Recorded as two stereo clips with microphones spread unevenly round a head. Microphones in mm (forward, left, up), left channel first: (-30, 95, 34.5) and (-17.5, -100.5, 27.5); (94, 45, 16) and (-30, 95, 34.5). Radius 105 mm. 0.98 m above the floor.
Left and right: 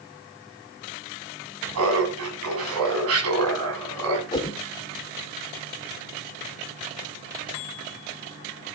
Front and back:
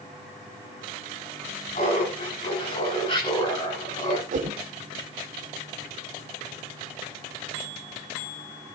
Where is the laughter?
85° right, 8 m; by 4.2 s 95° right, 9 m.